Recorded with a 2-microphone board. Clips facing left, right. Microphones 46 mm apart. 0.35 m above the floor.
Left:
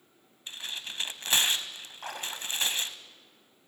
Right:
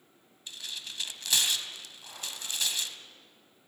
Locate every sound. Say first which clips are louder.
0.5 s tearing paper: left 3 dB; 35° left (ahead or behind), 1.1 m
2.0 s a splash: left 6 dB; 60° left (ahead or behind), 2 m